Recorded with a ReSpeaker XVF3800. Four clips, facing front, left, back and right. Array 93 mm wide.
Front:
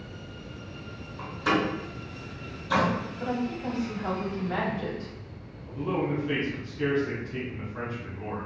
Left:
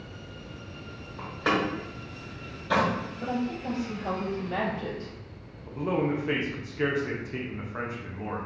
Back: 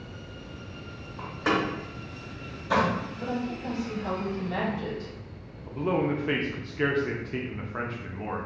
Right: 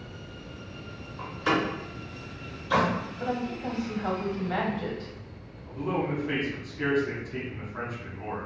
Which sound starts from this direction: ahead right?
A woman speaking, at 3.2 s.